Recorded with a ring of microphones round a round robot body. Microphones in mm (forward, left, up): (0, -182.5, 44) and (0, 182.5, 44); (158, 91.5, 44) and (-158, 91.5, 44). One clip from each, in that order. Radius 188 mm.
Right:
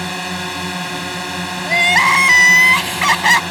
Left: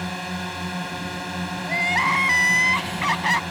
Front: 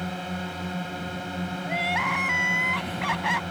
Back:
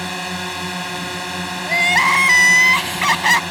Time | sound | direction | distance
0.0 | a drone | 150° right | ?
1.7 | crying | 140° right | ?